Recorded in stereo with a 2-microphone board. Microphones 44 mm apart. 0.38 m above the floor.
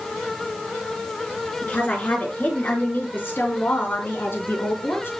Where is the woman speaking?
35° left (ahead or behind), 5.5 m; by 5.1 s 65° left (ahead or behind), 4.5 m.